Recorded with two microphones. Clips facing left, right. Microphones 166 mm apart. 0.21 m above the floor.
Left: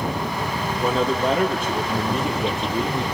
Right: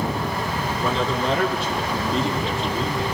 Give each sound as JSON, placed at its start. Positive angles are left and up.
{"t": 0.8, "sound": "a man speaking", "side_deg": 45, "distance_m": 6.5}